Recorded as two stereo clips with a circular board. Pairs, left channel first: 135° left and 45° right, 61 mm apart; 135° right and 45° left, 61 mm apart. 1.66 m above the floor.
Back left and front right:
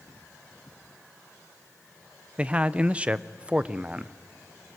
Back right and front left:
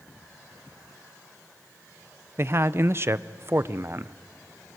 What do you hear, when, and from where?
2.4 s a man speaking: 20° left, 0.7 m